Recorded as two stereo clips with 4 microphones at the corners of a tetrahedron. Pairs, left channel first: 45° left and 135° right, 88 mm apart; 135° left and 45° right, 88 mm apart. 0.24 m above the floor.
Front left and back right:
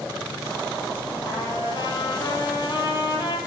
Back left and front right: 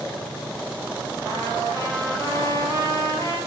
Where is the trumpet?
10° left, 3.5 m.